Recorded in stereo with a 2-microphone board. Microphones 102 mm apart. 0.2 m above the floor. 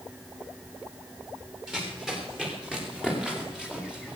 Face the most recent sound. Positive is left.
turn(degrees=-10)  # may be behind; listen again after turning